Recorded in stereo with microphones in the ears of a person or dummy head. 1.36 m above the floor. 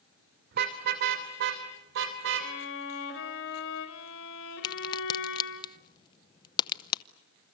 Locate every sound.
0.5 s a car horn: 55° right (ahead or behind), 2.5 m; by 2.5 s 70° right (ahead or behind), 3.5 m
2.4 s a violin: 75° left (ahead or behind), 4 m
4.6 s a crack: 25° left (ahead or behind), 0.9 m